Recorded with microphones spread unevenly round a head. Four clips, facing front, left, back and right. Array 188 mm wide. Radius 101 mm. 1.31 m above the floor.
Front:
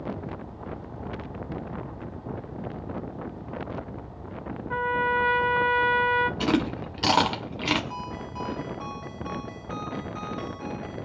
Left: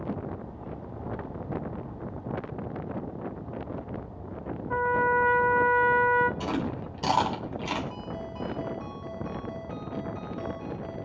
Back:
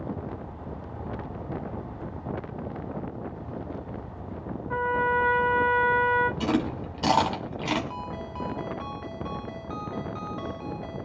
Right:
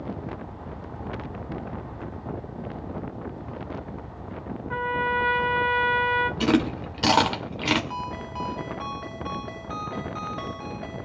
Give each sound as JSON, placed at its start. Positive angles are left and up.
{"t": 4.7, "sound": "a trumpet", "azimuth_deg": 65, "distance_m": 0.6}
{"t": 6.4, "sound": "chewing", "azimuth_deg": -60, "distance_m": 3.0}
{"t": 7.9, "sound": "a ringtone", "azimuth_deg": -85, "distance_m": 2.5}